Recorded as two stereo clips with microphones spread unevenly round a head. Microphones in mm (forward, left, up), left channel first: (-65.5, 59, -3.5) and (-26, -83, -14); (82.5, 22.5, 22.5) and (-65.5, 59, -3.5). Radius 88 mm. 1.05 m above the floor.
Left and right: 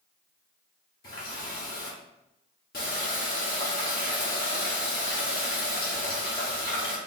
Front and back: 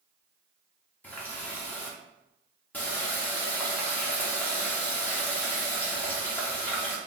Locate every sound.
1.0 s a running tap: 65° left, 1.7 m